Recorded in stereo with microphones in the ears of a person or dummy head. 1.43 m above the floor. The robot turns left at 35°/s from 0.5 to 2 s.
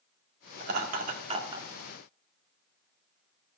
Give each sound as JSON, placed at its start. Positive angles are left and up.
{"t": 0.6, "sound": "laughter", "side_deg": -65, "distance_m": 1.7}